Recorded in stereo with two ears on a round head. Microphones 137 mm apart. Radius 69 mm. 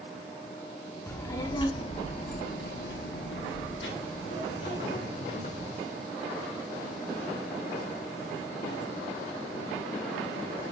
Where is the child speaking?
20° left (ahead or behind), 1.5 m; by 5.8 s 50° left (ahead or behind), 2.5 m.